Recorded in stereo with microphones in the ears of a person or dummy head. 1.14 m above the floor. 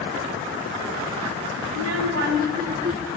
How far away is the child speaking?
About 0.9 m.